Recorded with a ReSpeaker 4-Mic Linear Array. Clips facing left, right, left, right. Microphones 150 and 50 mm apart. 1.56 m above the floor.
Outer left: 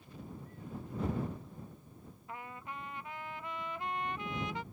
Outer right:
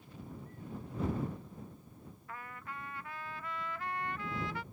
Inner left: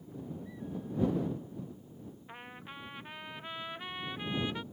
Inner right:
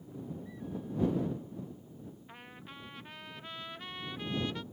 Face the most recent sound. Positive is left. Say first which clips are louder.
# outer left 2 dB, inner left 3 dB
turn(degrees=20)  # may be behind; listen again after turning